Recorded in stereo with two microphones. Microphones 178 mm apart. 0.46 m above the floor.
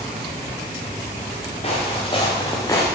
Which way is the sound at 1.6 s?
35° left (ahead or behind).